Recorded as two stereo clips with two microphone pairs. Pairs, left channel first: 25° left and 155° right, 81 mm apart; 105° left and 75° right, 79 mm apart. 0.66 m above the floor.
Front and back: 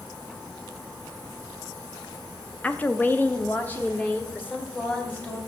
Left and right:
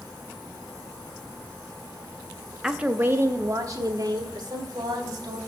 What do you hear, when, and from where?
2.6 s a woman speaking: 10° right, 0.5 m; by 5.4 s 45° right, 2.5 m